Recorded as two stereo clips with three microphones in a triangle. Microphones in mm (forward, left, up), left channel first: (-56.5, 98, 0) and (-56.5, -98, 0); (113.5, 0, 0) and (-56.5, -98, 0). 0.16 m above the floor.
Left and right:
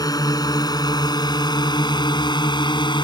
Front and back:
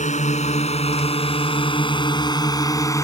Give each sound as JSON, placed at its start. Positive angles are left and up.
{"t": 0.0, "sound": "a drone", "azimuth_deg": 35}